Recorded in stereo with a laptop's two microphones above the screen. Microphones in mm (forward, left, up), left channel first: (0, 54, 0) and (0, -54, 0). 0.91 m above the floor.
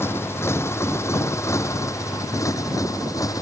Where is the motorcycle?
25° left (ahead or behind); by 3.4 s 35° left (ahead or behind).